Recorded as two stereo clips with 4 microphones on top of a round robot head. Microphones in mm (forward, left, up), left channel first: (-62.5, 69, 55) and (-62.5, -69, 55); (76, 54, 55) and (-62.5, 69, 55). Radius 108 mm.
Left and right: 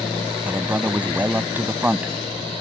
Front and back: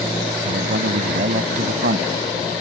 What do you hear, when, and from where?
0.5 s a man speaking: 165° right